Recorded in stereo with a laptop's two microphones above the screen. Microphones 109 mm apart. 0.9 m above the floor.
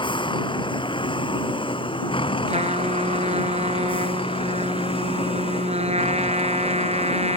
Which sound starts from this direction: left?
A vehicle, at 0.0 s.